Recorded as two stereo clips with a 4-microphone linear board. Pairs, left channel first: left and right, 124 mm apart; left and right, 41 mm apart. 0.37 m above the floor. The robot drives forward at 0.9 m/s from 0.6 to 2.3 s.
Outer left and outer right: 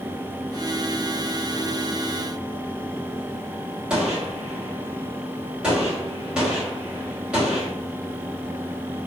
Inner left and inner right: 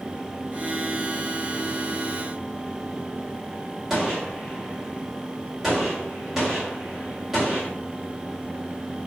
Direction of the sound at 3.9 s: 5° right (ahead or behind).